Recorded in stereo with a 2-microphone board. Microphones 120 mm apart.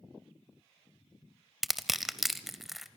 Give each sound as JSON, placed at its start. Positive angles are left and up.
{"t": 1.6, "sound": "crushing", "side_deg": 0, "distance_m": 0.6}